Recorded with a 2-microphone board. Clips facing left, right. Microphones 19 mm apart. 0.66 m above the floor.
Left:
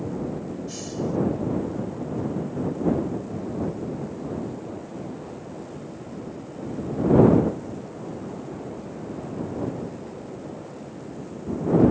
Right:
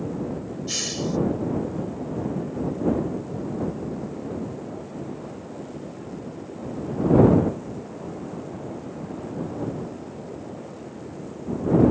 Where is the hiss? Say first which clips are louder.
Right 4 dB; 55° right (ahead or behind).